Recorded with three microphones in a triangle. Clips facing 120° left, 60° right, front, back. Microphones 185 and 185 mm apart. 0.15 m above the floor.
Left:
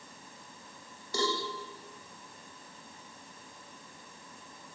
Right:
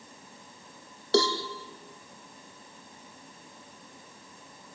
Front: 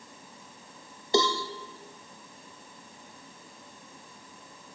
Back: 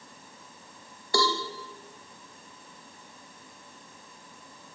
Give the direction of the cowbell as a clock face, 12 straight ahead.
2 o'clock.